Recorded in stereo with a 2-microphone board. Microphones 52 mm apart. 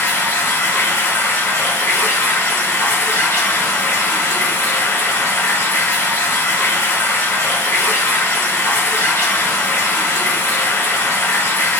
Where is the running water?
55° left (ahead or behind), 3 m.